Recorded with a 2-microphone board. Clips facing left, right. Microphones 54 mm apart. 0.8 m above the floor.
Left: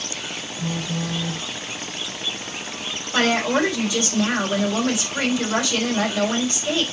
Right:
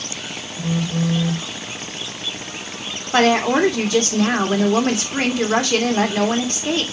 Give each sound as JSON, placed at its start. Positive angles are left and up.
{"t": 0.6, "sound": "a phone buzzing", "side_deg": -10, "distance_m": 1.8}
{"t": 3.1, "sound": "a woman speaking", "side_deg": -50, "distance_m": 1.6}